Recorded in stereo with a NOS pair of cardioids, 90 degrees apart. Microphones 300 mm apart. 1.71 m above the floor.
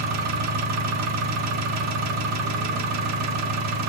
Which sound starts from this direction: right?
An engine running, at 0.0 s.